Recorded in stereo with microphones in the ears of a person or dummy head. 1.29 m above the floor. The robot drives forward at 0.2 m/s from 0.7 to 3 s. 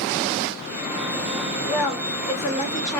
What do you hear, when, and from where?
1.7 s a woman speaking: 15° left (ahead or behind), 1.2 m